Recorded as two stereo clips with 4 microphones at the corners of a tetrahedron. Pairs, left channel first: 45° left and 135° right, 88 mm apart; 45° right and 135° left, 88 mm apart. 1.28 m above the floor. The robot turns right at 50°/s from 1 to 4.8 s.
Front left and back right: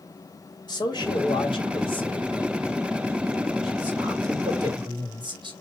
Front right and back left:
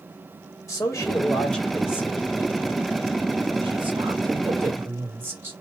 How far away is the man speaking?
About 3 m.